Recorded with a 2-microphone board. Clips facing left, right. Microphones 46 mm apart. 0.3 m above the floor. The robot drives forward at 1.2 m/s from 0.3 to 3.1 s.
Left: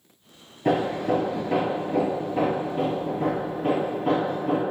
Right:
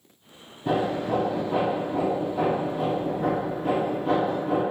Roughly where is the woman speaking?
No woman speaking in this recording.